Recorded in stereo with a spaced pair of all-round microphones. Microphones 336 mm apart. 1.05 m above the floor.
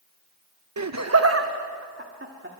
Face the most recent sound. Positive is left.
turn(degrees=-35)  # may be behind; listen again after turning